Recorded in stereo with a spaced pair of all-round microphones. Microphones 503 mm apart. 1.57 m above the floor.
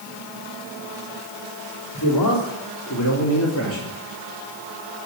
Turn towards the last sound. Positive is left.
turn(degrees=25)  # may be behind; listen again after turning